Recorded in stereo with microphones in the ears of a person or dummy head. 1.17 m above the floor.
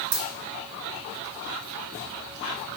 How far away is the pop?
No pop in this recording.